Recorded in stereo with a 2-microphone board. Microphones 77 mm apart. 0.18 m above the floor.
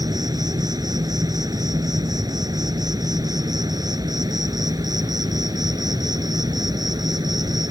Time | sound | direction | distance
0.0 | an insect | 65° right (ahead or behind) | ?